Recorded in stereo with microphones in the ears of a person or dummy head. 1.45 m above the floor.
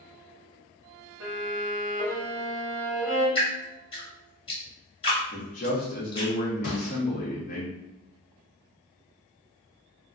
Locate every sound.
1.2 s a violin: 25° right (ahead or behind), 1.3 m
3.4 s dripping: 30° left (ahead or behind), 1.1 m
5.3 s a man speaking: 40° left (ahead or behind), 0.9 m
6.6 s a gunshot: 65° left (ahead or behind), 1.1 m